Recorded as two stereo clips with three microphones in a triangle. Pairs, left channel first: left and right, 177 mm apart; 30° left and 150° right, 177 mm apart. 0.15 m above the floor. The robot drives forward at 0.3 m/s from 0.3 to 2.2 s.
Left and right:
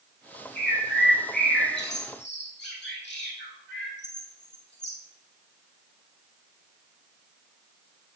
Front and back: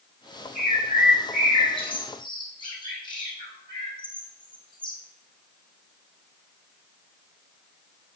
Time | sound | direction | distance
0.6 | a bird | 75° left | 1.5 m